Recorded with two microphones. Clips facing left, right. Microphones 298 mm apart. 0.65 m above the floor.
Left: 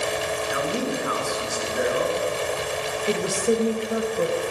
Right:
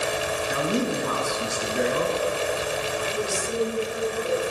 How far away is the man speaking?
About 8 m.